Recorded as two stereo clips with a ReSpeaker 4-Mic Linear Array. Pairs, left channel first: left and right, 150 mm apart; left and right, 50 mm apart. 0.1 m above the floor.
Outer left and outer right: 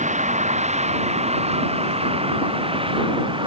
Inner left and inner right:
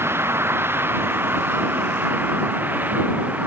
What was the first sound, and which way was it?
A vehicle, 50° right (ahead or behind).